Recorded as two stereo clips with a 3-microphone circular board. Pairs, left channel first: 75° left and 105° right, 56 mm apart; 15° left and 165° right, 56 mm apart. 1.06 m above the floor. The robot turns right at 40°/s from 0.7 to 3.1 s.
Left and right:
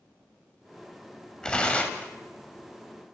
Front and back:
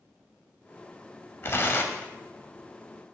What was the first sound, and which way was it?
Tearing paper, 5° left.